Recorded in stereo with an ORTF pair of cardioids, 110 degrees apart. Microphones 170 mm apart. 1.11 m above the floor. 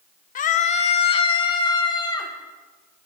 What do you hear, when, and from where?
0.3 s a scream: 55° left, 1.2 m; by 2.3 s 25° left, 3 m